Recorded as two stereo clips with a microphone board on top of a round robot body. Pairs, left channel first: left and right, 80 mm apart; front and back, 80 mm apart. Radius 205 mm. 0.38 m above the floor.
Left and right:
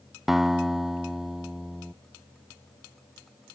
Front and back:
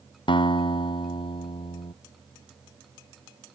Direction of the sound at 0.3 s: 5° right.